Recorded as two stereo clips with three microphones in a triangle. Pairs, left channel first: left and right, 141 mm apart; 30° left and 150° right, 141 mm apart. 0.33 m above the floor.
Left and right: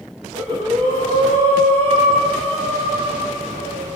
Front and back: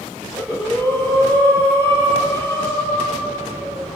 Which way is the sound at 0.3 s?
40° right.